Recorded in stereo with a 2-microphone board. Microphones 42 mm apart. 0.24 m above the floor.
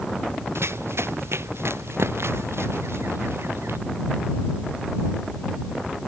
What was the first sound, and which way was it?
Running footsteps, 90° right.